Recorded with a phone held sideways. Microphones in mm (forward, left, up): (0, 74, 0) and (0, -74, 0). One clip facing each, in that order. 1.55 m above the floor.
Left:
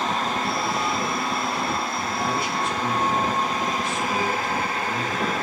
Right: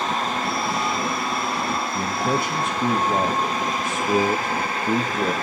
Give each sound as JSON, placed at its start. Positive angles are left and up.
{"t": 1.9, "sound": "a man speaking", "side_deg": -50, "distance_m": 1.8}